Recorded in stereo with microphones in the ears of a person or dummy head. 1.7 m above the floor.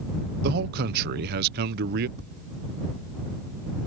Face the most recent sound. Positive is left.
turn(degrees=-65)  # may be behind; listen again after turning